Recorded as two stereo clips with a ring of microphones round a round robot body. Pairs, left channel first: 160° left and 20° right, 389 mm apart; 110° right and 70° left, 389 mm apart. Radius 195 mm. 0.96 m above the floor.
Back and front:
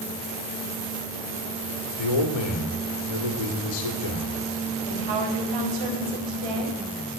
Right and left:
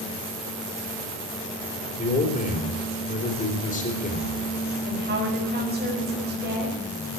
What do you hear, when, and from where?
2.0 s a man speaking: 175° left, 3 m
4.9 s a woman speaking: straight ahead, 5 m